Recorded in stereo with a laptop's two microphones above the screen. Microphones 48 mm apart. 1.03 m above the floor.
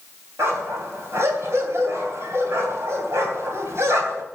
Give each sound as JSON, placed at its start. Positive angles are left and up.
{"t": 0.4, "sound": "a dog barking", "side_deg": -70, "distance_m": 3.0}